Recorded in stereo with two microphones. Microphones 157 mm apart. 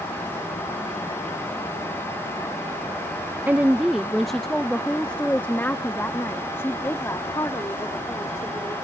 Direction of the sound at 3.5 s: 10° right (ahead or behind).